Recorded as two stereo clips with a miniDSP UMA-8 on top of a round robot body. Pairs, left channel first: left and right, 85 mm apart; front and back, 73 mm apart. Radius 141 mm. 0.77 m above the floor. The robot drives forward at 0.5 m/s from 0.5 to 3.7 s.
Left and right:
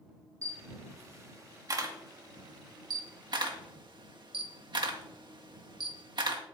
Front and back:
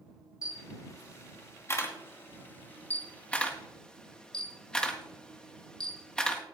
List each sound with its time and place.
0.4 s a camera shutter: 40° right, 2.5 m; by 6.4 s 80° right, 1.8 m